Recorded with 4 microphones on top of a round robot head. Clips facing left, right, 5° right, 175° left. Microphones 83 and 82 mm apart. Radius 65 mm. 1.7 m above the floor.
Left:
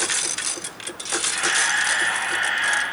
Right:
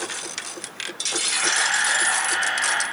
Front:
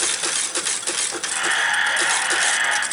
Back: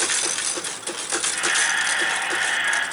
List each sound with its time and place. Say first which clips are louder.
1.3 s a camera shutter: even, front 3 dB; 25° right, 6.5 m